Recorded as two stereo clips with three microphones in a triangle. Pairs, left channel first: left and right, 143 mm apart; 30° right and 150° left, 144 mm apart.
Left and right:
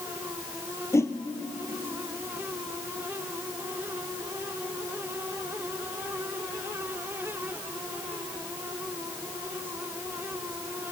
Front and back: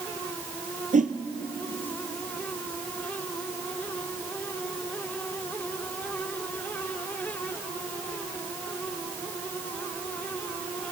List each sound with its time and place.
0.9 s a whoosh: 160° left, 1.1 m